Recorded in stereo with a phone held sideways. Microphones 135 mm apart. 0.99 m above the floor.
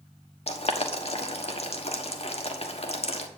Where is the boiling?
50° left (ahead or behind), 1.3 m.